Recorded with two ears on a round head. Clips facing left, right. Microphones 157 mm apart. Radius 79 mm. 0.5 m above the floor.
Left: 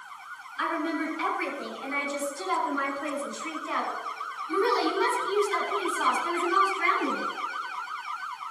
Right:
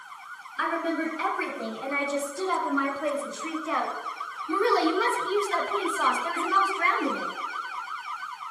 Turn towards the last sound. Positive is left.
turn(degrees=-45)  # may be behind; listen again after turning